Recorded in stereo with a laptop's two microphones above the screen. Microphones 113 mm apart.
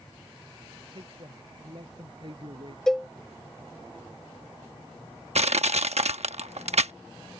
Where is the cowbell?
5° left (ahead or behind).